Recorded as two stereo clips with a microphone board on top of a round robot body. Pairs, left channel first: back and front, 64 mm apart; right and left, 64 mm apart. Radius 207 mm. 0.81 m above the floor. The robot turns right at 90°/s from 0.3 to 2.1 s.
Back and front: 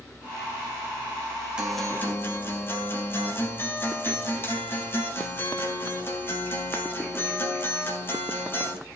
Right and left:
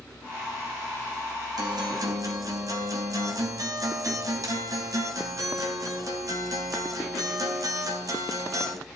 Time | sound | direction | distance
1.6 | a guitar | 75° left | 4 m